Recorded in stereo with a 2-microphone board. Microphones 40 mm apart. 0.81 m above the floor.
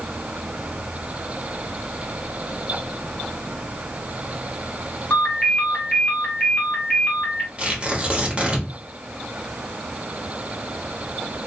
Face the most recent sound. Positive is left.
turn(degrees=-30)  # may be behind; listen again after turning